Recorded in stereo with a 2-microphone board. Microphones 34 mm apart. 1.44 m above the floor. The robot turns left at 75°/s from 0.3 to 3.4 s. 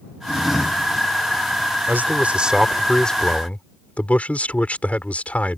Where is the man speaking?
110° right; by 5.6 s 135° left.